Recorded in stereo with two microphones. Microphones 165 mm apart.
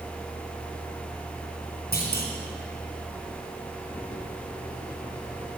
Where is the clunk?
70° left (ahead or behind), 3.5 m.